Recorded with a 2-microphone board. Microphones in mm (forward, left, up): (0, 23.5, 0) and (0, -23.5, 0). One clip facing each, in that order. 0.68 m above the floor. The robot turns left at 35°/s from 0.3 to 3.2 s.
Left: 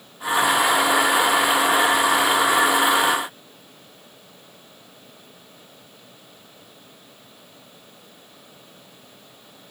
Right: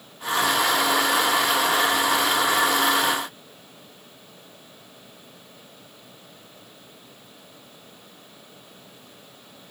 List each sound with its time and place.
Only background noise.